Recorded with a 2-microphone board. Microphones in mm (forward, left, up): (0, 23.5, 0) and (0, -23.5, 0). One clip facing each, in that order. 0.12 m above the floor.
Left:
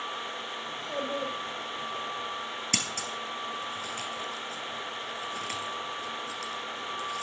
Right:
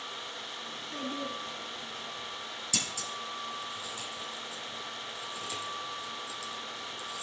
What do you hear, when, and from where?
0.7 s a child speaking: 65° left (ahead or behind), 3.5 m
2.7 s scissors: 55° left (ahead or behind), 2.5 m